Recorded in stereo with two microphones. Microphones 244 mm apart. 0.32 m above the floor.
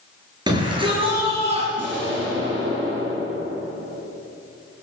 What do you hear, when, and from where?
0.5 s a shout: 20° right (ahead or behind), 5.5 m; by 1.7 s 25° right (ahead or behind), 6 m
1.8 s an explosion: 55° right (ahead or behind), 6 m